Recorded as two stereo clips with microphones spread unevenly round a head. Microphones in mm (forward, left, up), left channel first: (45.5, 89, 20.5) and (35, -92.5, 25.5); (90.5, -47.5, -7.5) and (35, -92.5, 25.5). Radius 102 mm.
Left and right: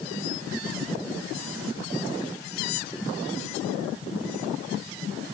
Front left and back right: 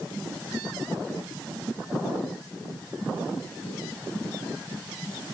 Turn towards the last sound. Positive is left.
No sound to turn to.